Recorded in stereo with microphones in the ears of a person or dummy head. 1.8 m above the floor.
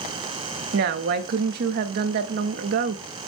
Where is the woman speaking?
60° right (ahead or behind), 0.6 m.